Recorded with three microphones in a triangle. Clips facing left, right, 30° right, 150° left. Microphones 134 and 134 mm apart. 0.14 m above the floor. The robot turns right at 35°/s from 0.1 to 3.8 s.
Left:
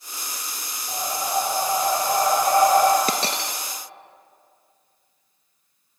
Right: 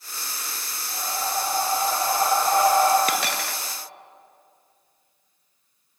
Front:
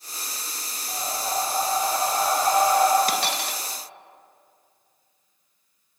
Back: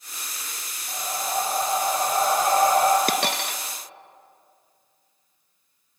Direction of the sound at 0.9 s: 60° left.